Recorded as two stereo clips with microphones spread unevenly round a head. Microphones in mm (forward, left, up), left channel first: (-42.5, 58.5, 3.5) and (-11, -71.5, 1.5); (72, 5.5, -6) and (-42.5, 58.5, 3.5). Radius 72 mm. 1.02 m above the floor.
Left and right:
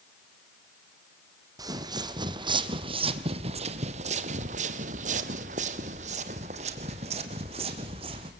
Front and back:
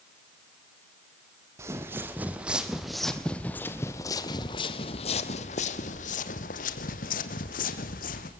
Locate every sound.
1.6 s footsteps: 135° right, 2 m; by 8.3 s 20° right, 2.5 m